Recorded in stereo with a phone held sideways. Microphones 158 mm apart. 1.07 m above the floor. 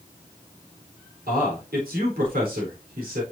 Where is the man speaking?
80° right, 4 m.